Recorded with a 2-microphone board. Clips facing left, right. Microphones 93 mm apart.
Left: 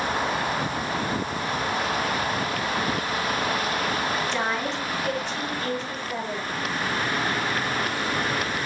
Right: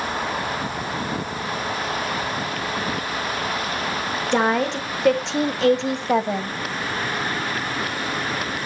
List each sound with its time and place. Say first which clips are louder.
4.3 s a woman speaking: right 7 dB; 55° right (ahead or behind), 1.6 m; by 6.5 s 60° right (ahead or behind), 1.0 m